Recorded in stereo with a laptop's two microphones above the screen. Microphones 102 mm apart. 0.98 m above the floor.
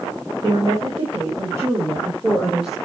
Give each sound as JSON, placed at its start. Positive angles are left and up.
{"t": 0.4, "sound": "a woman speaking", "side_deg": -50, "distance_m": 3.5}